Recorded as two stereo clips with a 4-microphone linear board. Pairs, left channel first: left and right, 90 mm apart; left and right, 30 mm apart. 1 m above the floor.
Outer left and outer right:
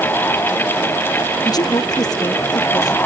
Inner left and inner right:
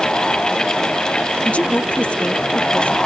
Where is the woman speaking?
45° left (ahead or behind).